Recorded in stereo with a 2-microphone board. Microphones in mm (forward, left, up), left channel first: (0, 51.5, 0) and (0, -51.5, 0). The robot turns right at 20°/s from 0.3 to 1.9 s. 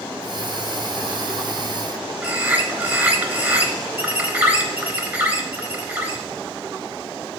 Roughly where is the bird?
Centre.